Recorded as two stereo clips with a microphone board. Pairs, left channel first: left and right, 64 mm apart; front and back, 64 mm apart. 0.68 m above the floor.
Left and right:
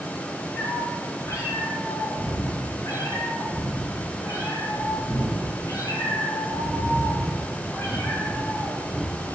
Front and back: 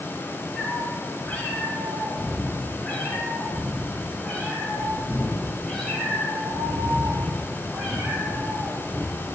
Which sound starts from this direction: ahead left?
A cat meowing, at 0.6 s.